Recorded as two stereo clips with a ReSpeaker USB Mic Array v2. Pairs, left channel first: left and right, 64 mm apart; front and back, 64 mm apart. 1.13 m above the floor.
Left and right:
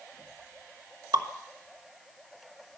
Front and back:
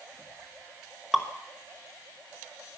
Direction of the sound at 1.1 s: 95° right.